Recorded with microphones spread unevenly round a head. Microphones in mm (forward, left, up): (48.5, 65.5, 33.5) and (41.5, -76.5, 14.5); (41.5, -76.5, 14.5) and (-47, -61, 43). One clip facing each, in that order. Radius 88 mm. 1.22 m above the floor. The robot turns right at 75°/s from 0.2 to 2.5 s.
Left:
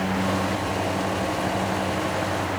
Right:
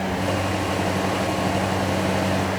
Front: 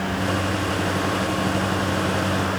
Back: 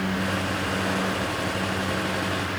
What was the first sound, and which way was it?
Only background noise.